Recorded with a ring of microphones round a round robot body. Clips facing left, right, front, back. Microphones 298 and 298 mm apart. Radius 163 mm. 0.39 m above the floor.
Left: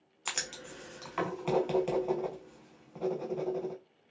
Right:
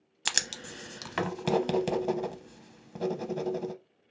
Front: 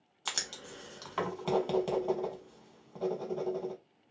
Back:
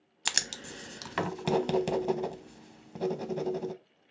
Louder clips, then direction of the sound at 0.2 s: Right 2 dB, back 3 dB; 130° right.